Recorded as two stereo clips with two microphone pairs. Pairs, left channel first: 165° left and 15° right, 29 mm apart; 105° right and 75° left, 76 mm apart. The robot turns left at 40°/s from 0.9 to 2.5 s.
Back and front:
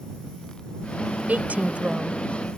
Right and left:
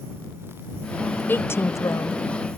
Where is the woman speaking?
40° right; by 2.2 s 75° right.